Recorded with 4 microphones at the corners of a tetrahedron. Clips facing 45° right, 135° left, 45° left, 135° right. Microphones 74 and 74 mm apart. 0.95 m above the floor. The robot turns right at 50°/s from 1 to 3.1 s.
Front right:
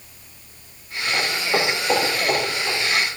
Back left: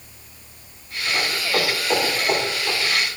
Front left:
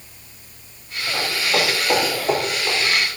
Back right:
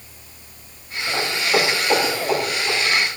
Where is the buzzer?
I don't hear a buzzer.